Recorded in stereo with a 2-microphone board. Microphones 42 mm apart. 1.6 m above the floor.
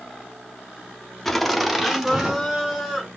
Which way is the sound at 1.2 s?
5° left (ahead or behind).